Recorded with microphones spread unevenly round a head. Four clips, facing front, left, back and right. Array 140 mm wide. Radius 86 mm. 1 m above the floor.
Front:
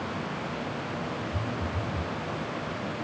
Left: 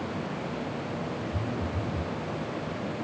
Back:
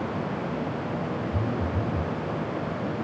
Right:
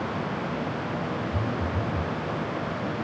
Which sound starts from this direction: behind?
A phone buzzing, at 1.3 s.